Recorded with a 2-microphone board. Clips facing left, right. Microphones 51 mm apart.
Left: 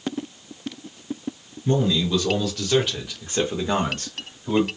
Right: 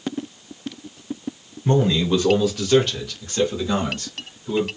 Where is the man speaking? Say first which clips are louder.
Right 3 dB; 40° right (ahead or behind), 1.0 m; by 4.7 s 55° left (ahead or behind), 1.5 m.